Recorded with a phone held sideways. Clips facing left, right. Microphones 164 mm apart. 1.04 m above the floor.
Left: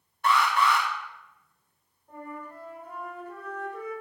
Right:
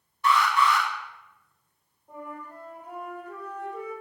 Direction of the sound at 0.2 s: 55° left (ahead or behind).